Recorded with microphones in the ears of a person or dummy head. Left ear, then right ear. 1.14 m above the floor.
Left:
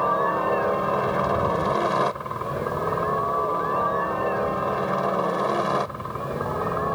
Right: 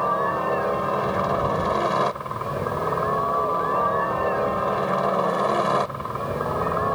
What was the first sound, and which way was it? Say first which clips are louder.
A helicopter: left 1 dB; 5° right (ahead or behind).